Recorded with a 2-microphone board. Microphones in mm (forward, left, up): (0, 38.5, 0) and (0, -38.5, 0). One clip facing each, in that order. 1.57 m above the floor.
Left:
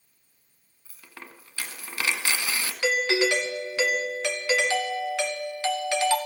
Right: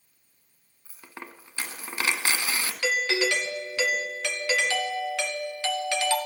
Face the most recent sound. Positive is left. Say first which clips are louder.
# left 3 dB
turn(degrees=15)  # may be behind; listen again after turning